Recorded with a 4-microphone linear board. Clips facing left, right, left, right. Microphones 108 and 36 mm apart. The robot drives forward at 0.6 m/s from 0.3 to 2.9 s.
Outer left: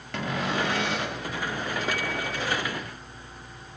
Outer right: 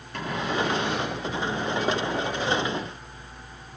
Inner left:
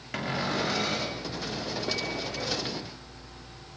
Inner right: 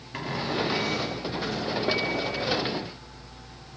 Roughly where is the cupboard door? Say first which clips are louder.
Outer right 1 dB, even; left.